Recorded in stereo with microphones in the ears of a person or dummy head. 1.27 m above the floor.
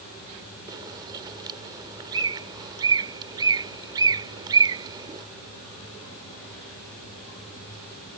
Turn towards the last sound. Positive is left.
turn(degrees=-20)  # may be behind; listen again after turning